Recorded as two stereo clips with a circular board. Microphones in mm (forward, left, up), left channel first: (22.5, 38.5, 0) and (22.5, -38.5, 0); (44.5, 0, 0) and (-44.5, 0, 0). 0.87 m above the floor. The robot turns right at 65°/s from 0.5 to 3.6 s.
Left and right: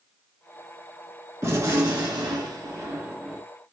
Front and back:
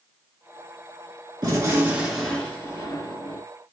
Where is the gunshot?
140° right, 1.7 m; by 3.4 s 10° right, 1.7 m.